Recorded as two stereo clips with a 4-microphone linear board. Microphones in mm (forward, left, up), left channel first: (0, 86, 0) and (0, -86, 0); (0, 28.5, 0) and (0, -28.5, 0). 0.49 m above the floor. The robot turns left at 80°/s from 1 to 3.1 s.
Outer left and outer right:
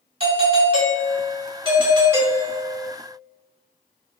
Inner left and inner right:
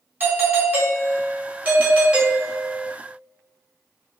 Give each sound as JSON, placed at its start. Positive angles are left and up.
{"t": 0.2, "sound": "a doorbell", "azimuth_deg": -60, "distance_m": 1.3}